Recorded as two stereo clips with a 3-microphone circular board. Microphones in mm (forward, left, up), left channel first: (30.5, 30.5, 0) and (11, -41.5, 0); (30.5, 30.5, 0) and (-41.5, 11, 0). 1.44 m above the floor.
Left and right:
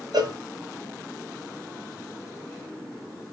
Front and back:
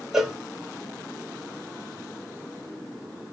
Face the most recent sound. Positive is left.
turn(degrees=-80)